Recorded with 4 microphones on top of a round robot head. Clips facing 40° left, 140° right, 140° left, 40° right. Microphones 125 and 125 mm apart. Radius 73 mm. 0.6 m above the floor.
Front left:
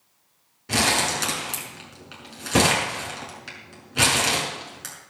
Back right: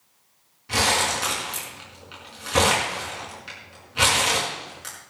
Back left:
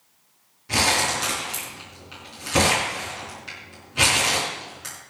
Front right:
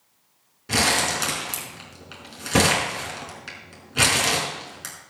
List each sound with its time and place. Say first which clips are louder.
0.7 s crumpling: even, even; 5° right, 5 m